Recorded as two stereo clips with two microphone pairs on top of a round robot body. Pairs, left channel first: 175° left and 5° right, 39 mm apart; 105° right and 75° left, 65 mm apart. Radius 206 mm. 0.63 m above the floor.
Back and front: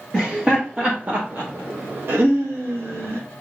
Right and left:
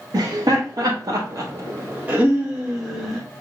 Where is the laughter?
70° left, 1.3 m; by 3.2 s 15° right, 1.5 m.